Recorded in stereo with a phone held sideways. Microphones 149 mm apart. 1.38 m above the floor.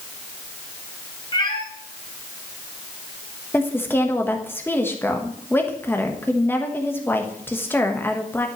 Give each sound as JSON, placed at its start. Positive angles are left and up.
{"t": 1.3, "sound": "a cat meowing", "side_deg": 30, "distance_m": 1.7}
{"t": 3.5, "sound": "a woman speaking", "side_deg": 15, "distance_m": 1.2}